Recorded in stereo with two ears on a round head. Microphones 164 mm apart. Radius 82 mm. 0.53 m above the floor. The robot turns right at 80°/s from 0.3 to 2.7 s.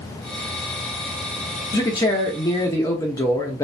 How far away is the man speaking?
About 0.7 m.